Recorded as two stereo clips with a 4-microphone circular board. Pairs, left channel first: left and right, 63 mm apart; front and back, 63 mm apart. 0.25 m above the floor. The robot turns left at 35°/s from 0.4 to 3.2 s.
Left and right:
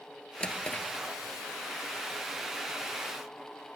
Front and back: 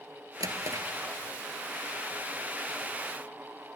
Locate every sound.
0.4 s a drawer: 165° left, 1.4 m; by 0.9 s 150° left, 1.4 m